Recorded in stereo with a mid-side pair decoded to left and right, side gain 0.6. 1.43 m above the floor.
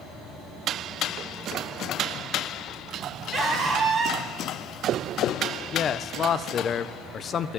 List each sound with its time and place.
3.3 s a scream: 25° right, 3 m
5.7 s a man speaking: 40° left, 0.8 m